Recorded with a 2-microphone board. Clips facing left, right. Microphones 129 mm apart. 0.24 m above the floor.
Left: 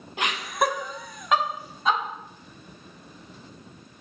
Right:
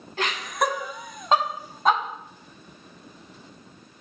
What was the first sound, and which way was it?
Laughter, 20° left (ahead or behind).